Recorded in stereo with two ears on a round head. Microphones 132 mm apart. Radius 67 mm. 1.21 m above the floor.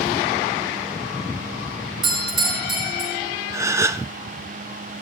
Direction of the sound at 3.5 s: 20° right (ahead or behind).